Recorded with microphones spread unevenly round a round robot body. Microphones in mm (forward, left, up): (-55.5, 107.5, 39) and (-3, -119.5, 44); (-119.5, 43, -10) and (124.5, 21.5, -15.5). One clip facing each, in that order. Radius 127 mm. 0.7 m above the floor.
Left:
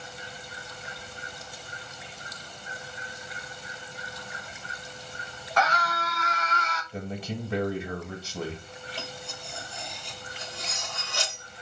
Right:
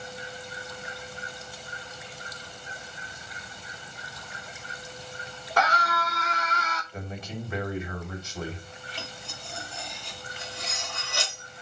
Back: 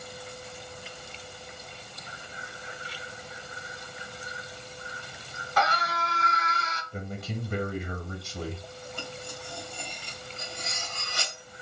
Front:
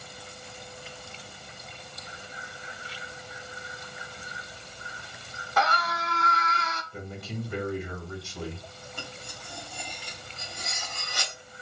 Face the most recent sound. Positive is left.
turn(degrees=-40)